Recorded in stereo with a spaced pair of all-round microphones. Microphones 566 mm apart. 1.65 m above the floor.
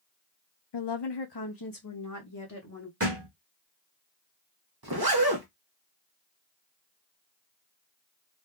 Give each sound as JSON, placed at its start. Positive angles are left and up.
{"t": 0.7, "sound": "a woman speaking", "side_deg": 50, "distance_m": 0.5}
{"t": 3.0, "sound": "a thud", "side_deg": -25, "distance_m": 1.5}
{"t": 4.8, "sound": "a zipper", "side_deg": -40, "distance_m": 0.9}